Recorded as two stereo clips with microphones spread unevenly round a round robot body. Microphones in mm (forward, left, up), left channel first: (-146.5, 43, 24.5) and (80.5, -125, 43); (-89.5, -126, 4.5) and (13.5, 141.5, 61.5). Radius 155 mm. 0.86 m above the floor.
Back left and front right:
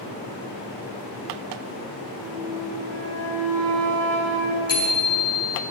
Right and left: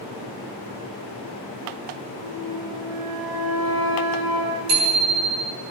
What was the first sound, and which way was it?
A flute, 75° left.